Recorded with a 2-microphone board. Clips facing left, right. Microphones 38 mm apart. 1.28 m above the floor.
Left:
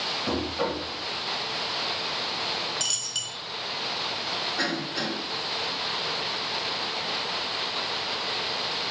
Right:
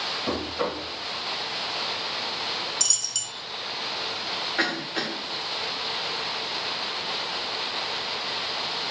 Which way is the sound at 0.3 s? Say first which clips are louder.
Even; 15° right (ahead or behind).